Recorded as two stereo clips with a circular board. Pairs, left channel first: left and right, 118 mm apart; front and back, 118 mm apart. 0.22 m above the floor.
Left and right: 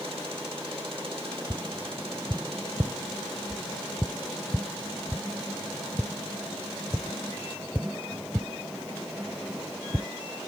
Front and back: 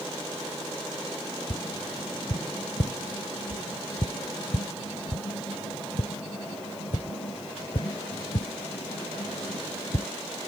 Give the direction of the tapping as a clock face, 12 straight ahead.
12 o'clock.